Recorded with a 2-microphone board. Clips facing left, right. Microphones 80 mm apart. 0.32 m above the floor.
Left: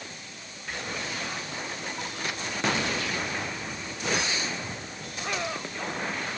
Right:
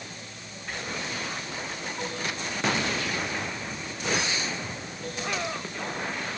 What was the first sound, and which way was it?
Only background noise.